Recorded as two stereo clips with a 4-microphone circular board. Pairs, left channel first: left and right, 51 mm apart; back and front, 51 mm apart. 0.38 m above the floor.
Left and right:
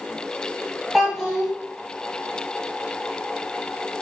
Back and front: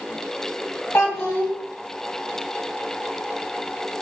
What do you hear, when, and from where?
0.9 s a child speaking: straight behind, 1.5 m